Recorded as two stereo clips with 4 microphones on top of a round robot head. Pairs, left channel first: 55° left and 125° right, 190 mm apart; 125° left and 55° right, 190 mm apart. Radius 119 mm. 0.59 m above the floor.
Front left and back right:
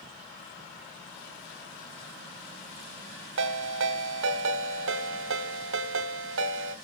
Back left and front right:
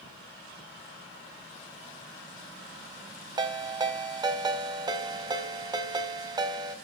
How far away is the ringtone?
About 2 m.